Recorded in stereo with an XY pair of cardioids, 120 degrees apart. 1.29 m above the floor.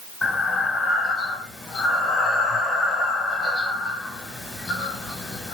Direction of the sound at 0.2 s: 25° left.